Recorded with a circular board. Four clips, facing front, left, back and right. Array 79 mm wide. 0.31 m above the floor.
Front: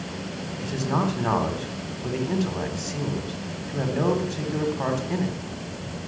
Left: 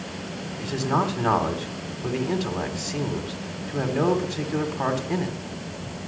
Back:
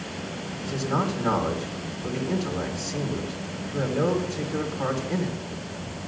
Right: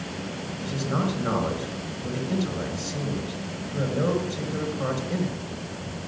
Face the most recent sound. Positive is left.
turn(degrees=70)